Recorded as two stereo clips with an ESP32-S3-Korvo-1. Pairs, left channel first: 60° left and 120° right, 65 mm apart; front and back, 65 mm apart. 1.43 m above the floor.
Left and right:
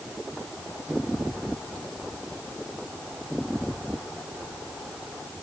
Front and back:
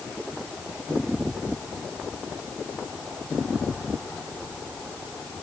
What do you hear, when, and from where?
Only background noise.